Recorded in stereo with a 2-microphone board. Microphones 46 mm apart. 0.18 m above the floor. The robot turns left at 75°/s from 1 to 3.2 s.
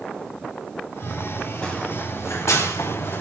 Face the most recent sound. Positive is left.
turn(degrees=45)  # may be behind; listen again after turning